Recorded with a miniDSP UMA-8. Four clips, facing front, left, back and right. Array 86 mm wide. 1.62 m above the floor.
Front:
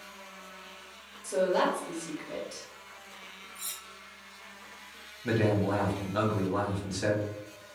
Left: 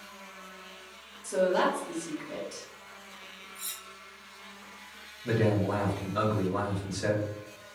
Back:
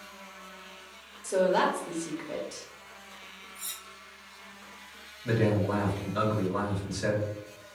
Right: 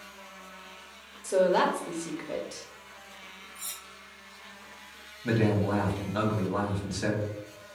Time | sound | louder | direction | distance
1.2 | a woman speaking | right 2 dB, back 2 dB | 115° right | 0.8 m
3.5 | cutlery clinking | even, even | 55° left | 1.3 m
5.2 | a man speaking | right 1 dB, even | 45° right | 1.1 m